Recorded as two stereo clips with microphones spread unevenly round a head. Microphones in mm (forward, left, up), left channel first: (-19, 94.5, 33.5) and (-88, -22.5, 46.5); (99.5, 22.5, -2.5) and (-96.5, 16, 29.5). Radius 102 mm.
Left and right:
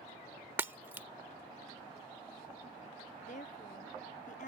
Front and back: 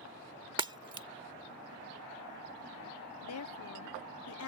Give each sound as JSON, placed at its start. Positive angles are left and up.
{"t": 0.6, "sound": "breaking glass", "azimuth_deg": -170}
{"t": 3.2, "sound": "a woman speaking", "azimuth_deg": 10}